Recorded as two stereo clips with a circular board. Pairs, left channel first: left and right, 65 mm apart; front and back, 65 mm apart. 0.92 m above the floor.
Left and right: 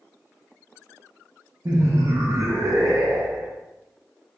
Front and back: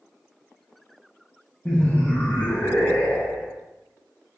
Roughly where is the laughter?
Ahead right.